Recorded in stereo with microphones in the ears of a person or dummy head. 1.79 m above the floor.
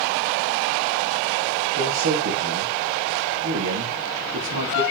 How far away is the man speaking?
About 3 m.